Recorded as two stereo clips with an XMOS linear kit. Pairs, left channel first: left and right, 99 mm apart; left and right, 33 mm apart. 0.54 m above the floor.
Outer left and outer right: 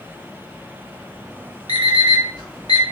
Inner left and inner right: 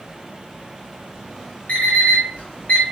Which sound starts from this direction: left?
An alarm clock, at 1.7 s.